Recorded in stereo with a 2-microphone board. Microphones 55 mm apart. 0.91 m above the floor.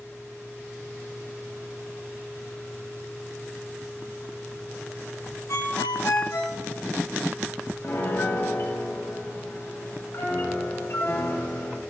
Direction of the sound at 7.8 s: 45° left (ahead or behind).